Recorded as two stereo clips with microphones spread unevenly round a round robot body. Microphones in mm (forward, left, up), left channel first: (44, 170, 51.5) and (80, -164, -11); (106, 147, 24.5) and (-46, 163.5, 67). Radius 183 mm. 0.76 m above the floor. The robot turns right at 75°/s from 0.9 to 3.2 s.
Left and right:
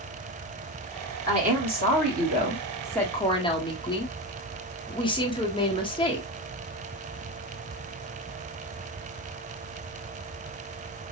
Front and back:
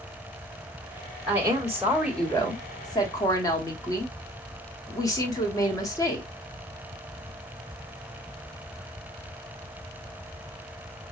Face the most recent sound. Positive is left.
turn(degrees=15)